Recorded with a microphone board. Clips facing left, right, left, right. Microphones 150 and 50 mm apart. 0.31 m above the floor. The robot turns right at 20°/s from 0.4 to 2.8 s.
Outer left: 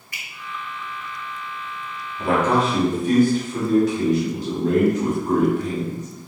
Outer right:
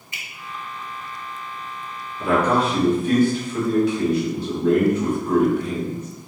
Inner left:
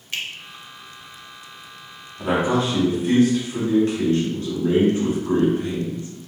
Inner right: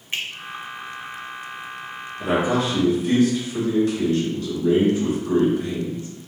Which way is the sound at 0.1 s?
25° right (ahead or behind).